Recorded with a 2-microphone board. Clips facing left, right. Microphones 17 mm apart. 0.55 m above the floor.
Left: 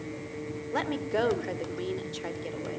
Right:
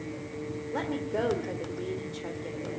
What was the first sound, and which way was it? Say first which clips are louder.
A woman speaking: left 2 dB; 30° left (ahead or behind).